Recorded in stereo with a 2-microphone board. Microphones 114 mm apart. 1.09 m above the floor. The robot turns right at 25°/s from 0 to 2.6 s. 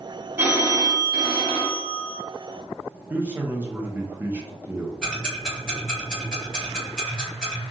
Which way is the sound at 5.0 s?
Centre (ahead or behind).